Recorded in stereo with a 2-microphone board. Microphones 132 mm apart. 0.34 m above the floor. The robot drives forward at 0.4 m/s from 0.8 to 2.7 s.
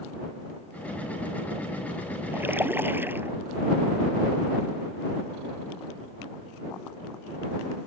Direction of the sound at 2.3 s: 15° right (ahead or behind).